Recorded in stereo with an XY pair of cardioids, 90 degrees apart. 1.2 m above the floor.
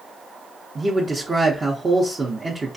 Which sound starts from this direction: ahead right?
A man speaking, at 0.8 s.